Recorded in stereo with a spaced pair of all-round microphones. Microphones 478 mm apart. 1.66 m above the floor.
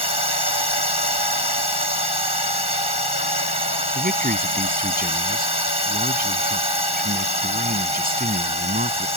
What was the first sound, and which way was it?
A drone, 50° left (ahead or behind).